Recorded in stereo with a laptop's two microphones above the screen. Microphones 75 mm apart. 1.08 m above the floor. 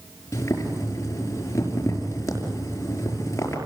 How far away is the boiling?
About 5.5 m.